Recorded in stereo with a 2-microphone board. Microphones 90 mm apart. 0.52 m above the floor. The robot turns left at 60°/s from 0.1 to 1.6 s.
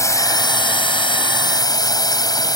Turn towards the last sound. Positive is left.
turn(degrees=50)